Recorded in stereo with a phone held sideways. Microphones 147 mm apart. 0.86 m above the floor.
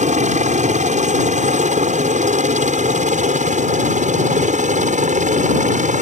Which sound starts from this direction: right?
A helicopter, at 0.0 s.